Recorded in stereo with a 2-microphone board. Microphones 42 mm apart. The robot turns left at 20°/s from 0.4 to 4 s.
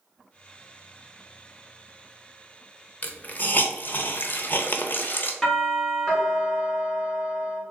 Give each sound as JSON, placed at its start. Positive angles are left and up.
{"t": 3.0, "sound": "a hiss", "side_deg": 40, "distance_m": 0.5}
{"t": 5.4, "sound": "a doorbell", "side_deg": 0, "distance_m": 1.5}